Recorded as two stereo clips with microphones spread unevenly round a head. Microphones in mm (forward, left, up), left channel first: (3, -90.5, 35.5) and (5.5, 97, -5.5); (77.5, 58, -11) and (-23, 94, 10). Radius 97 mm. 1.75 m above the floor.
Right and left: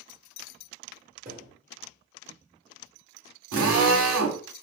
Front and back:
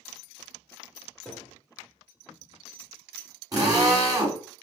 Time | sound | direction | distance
1.2 | a thud | 90° left | 1.6 m
3.5 | a drill | 105° left | 2 m